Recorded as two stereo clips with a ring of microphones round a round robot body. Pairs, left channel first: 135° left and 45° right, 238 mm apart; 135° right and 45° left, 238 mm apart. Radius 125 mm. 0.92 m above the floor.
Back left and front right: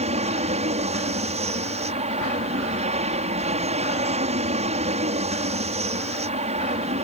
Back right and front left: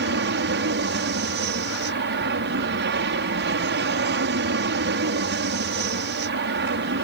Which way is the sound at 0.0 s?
15° left.